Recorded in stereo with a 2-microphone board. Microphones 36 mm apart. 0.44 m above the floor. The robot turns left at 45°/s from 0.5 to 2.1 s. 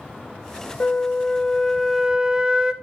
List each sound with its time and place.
0.8 s a flute: 40° left, 0.5 m; by 2.7 s 20° right, 0.5 m